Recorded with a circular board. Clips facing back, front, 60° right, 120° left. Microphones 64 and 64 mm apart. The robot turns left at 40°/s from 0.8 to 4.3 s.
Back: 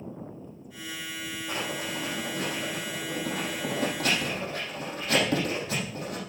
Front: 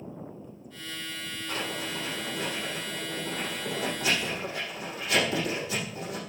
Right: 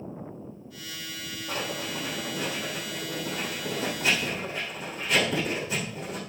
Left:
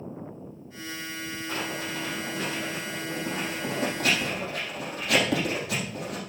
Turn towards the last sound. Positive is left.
turn(degrees=145)